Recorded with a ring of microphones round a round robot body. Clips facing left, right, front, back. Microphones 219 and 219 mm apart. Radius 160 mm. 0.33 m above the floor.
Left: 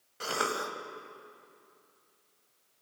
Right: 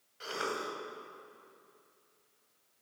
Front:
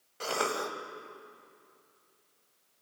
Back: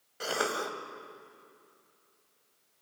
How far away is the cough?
About 2.5 m.